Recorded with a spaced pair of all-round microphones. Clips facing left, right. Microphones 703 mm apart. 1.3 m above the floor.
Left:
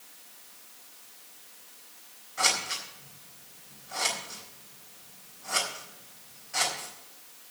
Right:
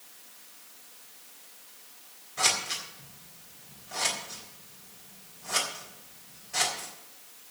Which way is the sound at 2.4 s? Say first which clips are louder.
Left 1 dB; 65° right (ahead or behind).